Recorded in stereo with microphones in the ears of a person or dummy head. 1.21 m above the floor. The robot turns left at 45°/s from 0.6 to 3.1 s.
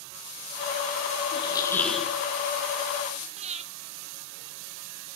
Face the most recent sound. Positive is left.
turn(degrees=-35)  # may be behind; listen again after turning